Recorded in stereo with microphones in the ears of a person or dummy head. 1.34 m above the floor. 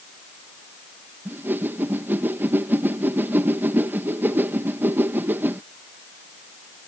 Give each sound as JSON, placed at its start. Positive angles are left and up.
{"t": 1.2, "sound": "a whoosh", "side_deg": -15}